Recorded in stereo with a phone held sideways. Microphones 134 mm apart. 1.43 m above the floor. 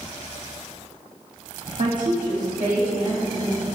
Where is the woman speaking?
70° right (ahead or behind), 0.6 m.